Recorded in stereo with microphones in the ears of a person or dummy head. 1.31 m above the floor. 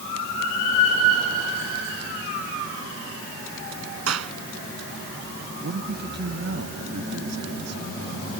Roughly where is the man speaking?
Right.